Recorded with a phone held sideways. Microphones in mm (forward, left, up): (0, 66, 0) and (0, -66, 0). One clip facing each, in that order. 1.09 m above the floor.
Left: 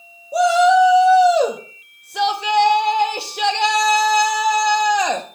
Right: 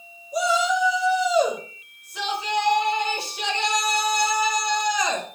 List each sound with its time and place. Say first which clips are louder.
0.3 s a shout: left 10 dB; 70° left (ahead or behind), 1.7 m